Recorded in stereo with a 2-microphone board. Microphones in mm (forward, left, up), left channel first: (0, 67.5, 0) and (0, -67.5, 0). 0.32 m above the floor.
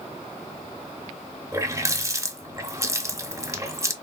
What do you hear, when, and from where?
1.5 s a running tap: 25° right (ahead or behind), 0.6 m